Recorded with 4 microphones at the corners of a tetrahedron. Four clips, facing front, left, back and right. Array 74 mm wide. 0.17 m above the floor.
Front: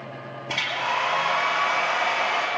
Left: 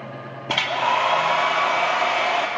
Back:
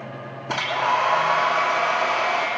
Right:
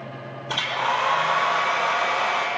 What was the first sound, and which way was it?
A hair dryer, 95° left.